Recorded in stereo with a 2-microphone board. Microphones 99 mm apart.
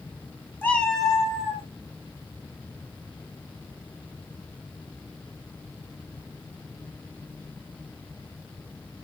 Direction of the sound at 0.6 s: 20° left (ahead or behind).